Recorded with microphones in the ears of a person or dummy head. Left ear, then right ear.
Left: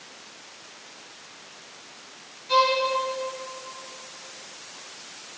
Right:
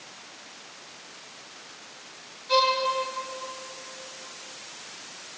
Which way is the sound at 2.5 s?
5° right (ahead or behind).